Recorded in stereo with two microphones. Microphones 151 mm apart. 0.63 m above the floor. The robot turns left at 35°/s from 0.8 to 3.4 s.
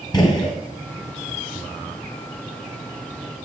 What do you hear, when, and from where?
0.1 s a gunshot: 30° left (ahead or behind), 1.3 m